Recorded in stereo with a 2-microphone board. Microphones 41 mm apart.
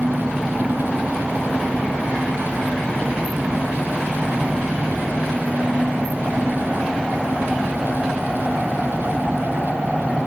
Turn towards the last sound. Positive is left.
turn(degrees=-25)  # may be behind; listen again after turning